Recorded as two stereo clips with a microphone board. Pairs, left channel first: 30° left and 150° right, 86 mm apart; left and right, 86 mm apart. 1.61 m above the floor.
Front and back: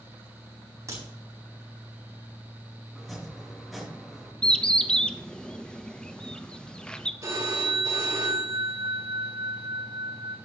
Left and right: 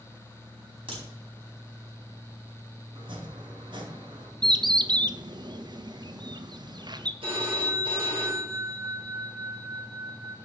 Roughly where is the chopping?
Ahead right.